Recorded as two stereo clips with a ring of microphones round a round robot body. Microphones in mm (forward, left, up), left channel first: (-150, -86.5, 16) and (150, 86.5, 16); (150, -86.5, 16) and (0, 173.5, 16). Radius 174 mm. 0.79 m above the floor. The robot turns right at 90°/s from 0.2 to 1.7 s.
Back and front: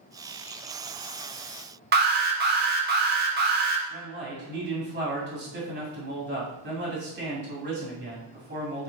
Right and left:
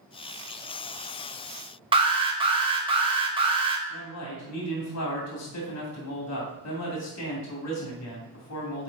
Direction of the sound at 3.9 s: 35° right.